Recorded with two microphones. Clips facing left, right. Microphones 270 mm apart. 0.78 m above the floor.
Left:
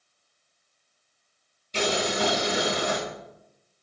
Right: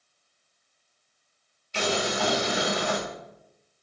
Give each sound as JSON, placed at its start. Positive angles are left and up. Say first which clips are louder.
{"t": 1.7, "sound": "boiling", "louder": "left 1 dB", "side_deg": 40, "distance_m": 1.1}